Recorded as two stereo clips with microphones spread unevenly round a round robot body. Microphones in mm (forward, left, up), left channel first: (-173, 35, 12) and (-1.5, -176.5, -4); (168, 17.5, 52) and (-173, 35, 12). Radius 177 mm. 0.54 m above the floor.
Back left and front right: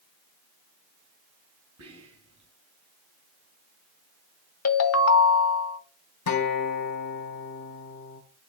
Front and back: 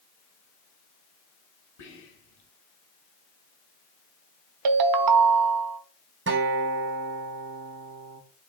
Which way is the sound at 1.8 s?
15° right.